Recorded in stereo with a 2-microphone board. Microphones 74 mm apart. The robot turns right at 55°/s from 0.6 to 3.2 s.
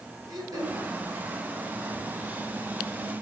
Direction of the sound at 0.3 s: 60° right (ahead or behind).